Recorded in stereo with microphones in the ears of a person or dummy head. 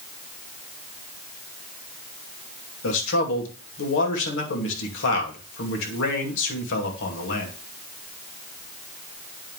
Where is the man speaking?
70° left (ahead or behind), 2.5 m.